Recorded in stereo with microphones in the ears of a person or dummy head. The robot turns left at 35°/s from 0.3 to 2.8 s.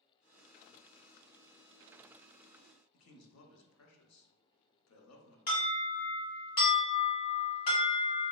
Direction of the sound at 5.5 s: 50° left (ahead or behind).